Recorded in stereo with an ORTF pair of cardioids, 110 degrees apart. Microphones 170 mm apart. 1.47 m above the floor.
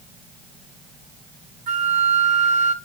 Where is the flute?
45° right, 0.9 m.